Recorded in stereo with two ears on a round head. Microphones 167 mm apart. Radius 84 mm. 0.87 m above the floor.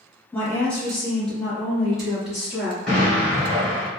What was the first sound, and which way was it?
A woman speaking, 10° left (ahead or behind).